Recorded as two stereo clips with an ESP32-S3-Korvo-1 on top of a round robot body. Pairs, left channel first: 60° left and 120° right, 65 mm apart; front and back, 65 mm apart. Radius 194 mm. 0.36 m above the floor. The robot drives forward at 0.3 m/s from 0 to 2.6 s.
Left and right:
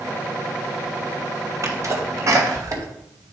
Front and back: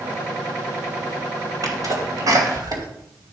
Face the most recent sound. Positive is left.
turn(degrees=-160)